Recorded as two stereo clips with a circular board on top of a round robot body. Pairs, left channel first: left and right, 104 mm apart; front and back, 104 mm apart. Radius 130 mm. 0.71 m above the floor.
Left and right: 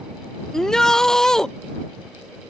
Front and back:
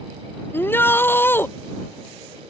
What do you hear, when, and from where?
0.5 s a shout: 15° left